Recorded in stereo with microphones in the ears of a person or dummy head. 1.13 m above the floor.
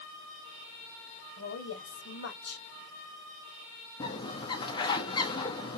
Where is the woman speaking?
75° left (ahead or behind), 1.6 m.